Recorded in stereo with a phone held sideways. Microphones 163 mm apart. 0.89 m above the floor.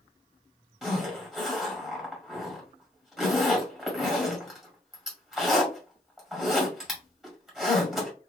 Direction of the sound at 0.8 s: Centre (ahead or behind).